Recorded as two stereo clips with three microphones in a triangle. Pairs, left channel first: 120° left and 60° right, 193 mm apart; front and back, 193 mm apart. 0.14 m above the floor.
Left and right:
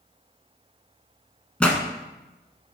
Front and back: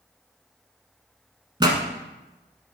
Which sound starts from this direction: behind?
A pop, at 1.6 s.